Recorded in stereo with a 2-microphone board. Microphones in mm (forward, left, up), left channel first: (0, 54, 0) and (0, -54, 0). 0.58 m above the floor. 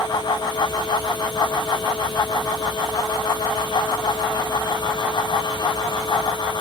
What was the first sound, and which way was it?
Only background noise.